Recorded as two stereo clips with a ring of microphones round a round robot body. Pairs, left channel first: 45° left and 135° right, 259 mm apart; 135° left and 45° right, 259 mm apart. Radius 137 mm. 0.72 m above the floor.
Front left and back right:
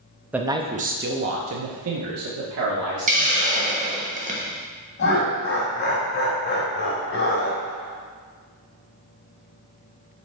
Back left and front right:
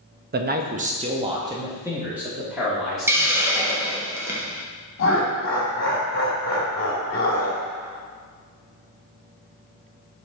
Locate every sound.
0.3 s a man speaking: 55° right, 0.6 m; by 3.4 s 135° right, 1.7 m
3.1 s a hiss: 120° right, 1.2 m
5.0 s laughter: 90° left, 1.8 m